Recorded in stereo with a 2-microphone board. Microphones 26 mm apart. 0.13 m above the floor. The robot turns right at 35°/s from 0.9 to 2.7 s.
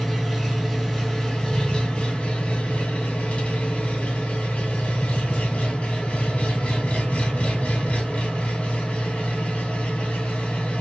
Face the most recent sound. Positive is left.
turn(degrees=75)